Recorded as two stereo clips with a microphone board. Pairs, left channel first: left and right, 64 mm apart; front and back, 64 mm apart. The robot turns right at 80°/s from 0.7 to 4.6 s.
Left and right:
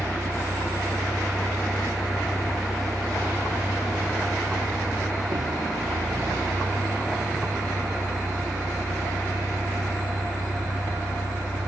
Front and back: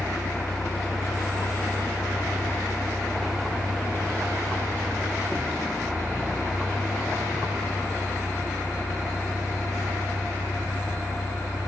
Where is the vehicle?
40° right; by 11.7 s 90° right.